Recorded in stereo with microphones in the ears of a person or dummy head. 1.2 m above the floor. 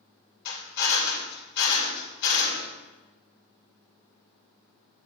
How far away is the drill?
About 2.0 m.